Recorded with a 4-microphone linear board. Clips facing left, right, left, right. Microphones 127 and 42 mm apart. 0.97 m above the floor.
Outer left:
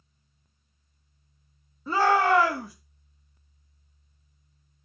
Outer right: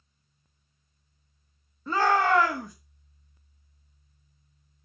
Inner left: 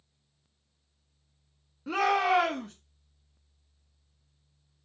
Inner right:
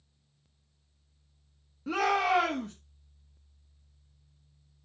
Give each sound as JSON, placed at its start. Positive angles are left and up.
{"t": 1.9, "sound": "a shout", "side_deg": 5, "distance_m": 1.6}